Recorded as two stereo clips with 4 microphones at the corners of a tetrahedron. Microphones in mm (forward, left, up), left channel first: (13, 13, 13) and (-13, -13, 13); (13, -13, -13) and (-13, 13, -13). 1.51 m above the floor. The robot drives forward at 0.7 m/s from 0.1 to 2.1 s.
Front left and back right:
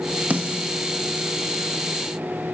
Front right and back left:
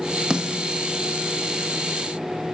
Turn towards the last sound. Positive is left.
turn(degrees=-170)